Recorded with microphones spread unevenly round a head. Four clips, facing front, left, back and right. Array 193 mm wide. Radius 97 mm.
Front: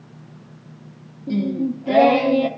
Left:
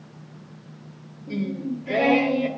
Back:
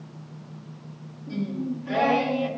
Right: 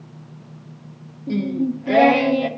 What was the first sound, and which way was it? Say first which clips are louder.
Singing: right 6 dB, front 8 dB; 50° right.